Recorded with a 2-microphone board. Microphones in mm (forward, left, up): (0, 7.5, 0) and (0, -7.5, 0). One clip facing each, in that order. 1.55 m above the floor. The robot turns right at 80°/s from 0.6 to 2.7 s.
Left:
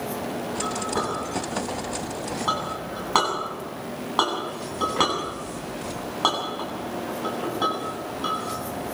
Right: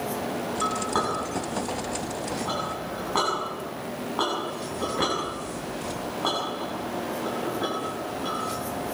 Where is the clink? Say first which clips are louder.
Right 2 dB; 75° right (ahead or behind), 9 m; by 8.9 s 85° left, 9 m.